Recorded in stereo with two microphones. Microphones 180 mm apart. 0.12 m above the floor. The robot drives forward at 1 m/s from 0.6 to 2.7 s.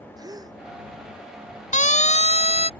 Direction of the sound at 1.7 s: 40° left (ahead or behind).